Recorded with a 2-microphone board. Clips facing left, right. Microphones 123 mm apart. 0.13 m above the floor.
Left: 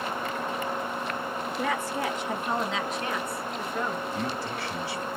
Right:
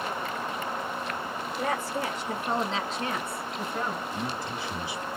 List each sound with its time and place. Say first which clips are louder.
1.6 s a woman speaking: even; 35° right (ahead or behind), 1.8 m; by 4.0 s 20° right (ahead or behind), 1.2 m
4.1 s a man speaking: left 2 dB; 20° right (ahead or behind), 2 m